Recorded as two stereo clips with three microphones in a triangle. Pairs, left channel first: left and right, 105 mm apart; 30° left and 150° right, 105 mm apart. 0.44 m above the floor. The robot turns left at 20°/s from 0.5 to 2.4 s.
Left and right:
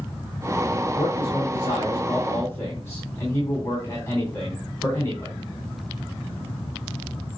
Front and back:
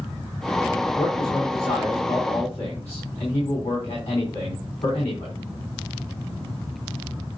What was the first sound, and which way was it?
A man speaking, 60° left.